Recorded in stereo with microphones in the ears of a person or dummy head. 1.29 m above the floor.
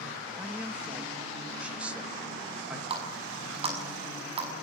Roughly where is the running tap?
Right.